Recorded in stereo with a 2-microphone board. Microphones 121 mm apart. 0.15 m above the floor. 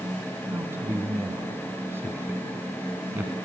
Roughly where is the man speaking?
Right.